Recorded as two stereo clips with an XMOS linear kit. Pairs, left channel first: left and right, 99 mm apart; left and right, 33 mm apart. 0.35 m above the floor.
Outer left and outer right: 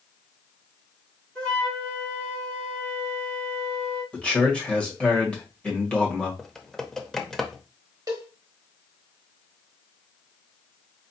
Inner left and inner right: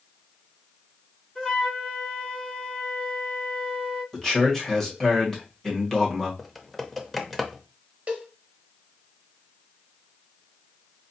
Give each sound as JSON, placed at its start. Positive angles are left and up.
{"t": 1.4, "sound": "a flute", "side_deg": 15, "distance_m": 3.0}
{"t": 4.1, "sound": "a man speaking", "side_deg": 10, "distance_m": 1.5}
{"t": 6.4, "sound": "typing on a keyboard", "side_deg": 5, "distance_m": 0.6}
{"t": 8.1, "sound": "a cowbell", "side_deg": -40, "distance_m": 1.2}